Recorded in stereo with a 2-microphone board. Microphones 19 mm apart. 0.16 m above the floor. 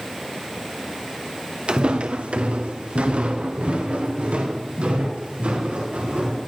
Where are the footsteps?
55° right (ahead or behind), 1.2 m; by 6.4 s 70° right (ahead or behind), 6.5 m.